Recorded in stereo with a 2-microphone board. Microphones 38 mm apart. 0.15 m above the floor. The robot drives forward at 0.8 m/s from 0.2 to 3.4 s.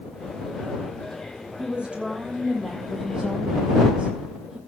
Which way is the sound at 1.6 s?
25° right (ahead or behind).